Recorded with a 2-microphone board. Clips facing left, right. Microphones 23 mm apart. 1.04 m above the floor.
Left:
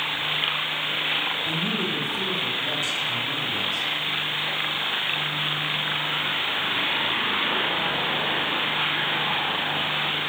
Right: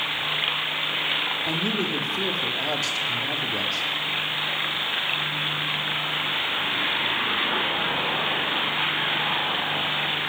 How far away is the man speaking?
About 1.8 m.